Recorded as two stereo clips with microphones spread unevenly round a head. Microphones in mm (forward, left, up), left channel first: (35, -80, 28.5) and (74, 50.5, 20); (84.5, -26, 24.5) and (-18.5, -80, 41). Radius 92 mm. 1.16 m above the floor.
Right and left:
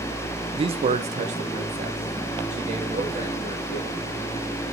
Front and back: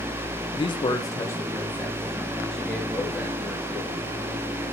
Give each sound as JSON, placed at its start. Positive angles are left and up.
{"t": 0.5, "sound": "a man speaking", "azimuth_deg": 40, "distance_m": 0.8}